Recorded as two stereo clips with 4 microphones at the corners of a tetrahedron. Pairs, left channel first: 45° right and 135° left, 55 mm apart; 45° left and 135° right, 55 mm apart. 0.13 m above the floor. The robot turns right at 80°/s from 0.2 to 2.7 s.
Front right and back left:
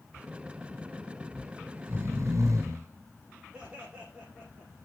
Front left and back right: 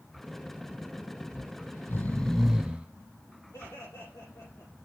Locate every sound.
1.3 s snoring: 45° left, 1.8 m; by 2.9 s 155° left, 1.8 m
3.5 s laughter: 60° left, 6 m